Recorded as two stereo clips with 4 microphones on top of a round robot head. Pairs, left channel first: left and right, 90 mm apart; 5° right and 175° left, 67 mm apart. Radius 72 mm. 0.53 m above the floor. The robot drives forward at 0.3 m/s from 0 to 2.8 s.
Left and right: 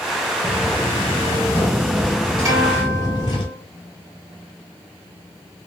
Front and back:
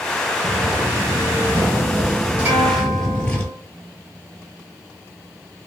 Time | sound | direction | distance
0.4 | footsteps | 135° right | 0.8 m
2.5 | a guitar | 130° right | 1.1 m